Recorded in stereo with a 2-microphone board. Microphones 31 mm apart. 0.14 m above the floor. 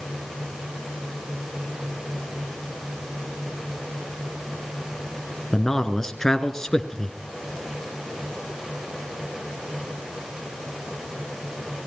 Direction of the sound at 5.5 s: 15° left (ahead or behind).